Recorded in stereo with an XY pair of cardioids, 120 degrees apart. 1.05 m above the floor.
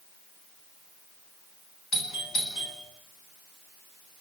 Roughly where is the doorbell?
Ahead left.